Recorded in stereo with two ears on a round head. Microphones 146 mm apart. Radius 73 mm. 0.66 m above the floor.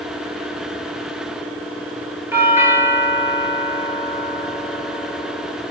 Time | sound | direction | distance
2.3 | a doorbell | 15° right (ahead or behind) | 1.4 m